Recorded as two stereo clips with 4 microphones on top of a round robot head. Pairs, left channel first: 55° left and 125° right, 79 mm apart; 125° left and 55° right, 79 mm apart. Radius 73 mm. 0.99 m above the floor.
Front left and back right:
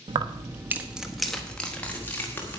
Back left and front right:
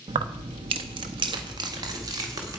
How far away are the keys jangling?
About 0.8 m.